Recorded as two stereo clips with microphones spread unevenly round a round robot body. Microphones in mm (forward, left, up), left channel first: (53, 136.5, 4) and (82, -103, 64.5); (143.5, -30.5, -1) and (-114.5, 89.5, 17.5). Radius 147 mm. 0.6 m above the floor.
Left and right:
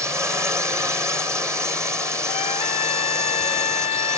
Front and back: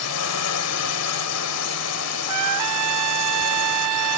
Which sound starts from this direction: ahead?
A drone, at 0.0 s.